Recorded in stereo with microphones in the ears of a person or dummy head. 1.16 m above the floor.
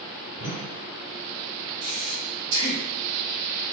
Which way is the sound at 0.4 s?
25° right (ahead or behind).